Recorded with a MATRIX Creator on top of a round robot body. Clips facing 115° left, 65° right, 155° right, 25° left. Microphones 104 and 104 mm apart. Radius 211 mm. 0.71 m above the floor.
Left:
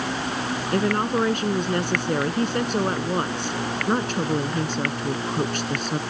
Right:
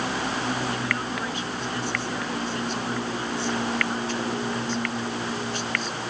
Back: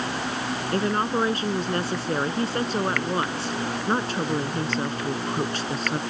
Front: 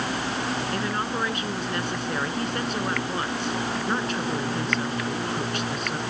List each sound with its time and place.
0.7 s a woman speaking: 145° left